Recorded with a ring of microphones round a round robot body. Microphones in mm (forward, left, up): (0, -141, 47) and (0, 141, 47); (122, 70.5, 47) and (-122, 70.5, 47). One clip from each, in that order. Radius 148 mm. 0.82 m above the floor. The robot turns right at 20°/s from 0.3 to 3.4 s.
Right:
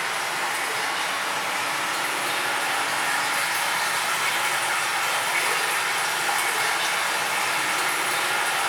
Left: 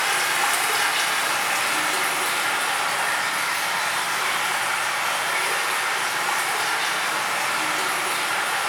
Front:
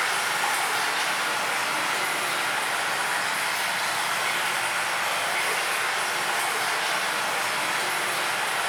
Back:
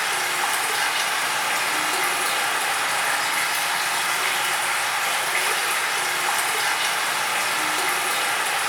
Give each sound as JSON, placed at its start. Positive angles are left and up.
{"t": 0.0, "sound": "running water", "azimuth_deg": 125, "distance_m": 1.0}